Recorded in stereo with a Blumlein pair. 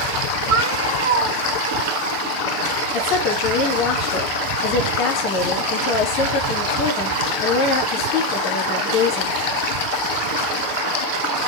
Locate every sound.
0.5 s a cat meowing: 60° right, 3 m
2.9 s a woman speaking: 40° left, 2.5 m